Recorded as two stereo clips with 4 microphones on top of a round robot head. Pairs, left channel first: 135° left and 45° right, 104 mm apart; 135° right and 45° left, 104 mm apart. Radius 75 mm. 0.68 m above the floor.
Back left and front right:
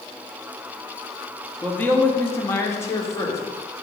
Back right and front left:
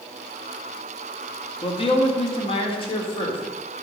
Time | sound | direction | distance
1.6 | a man speaking | 155° right | 1.5 m